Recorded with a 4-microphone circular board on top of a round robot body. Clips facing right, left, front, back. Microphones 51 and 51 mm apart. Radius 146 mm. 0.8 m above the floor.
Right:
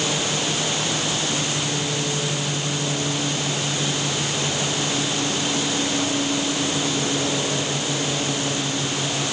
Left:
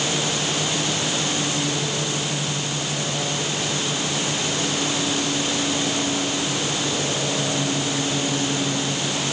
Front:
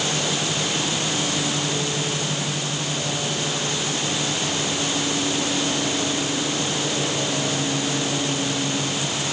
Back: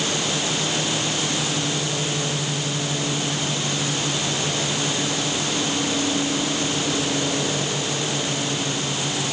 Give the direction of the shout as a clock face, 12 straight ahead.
I don't hear a shout.